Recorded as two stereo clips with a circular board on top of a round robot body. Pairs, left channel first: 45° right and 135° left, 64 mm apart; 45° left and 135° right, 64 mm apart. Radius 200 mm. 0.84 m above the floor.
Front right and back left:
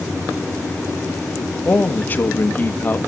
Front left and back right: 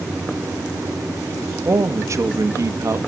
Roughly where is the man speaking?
Right.